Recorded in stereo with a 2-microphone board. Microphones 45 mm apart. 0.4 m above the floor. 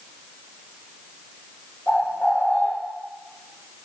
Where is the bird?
35° left (ahead or behind), 4 m.